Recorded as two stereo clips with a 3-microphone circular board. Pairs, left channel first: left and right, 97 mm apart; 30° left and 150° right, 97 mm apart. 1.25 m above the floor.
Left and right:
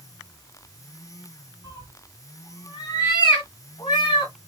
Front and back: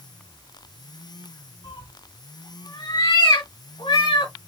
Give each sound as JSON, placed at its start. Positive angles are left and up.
{"t": 1.6, "sound": "a cat meowing", "azimuth_deg": 40, "distance_m": 1.6}